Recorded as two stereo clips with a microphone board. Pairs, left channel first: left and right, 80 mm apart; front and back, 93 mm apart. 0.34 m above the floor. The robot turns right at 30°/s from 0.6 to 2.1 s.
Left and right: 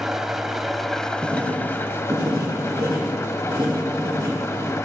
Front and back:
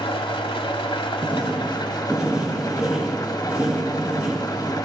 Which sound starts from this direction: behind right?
Writing, at 1.2 s.